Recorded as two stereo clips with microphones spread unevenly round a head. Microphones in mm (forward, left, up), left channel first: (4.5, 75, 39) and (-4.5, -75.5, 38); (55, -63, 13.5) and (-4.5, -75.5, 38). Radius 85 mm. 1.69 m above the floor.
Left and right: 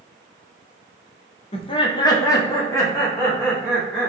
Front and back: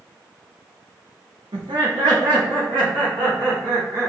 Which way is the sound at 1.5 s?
140° left.